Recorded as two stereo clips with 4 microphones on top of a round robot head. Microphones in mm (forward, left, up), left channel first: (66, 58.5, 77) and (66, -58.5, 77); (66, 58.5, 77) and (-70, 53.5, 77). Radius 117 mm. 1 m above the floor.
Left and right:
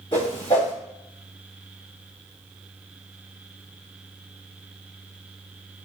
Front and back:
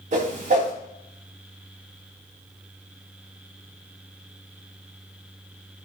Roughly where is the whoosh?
Behind left.